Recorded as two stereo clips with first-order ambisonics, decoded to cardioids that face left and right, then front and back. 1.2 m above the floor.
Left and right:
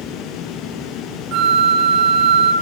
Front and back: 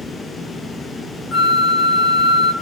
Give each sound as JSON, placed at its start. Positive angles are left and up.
{"t": 1.3, "sound": "a flute", "azimuth_deg": -60, "distance_m": 1.3}